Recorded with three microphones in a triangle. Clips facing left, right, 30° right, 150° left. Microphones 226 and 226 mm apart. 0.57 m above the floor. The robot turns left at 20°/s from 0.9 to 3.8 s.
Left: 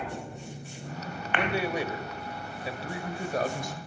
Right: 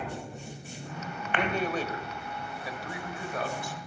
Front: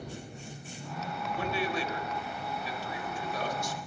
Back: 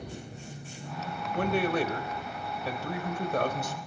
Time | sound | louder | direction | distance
1.3 | a man speaking | left 1 dB, back 7 dB | 175° left | 3 m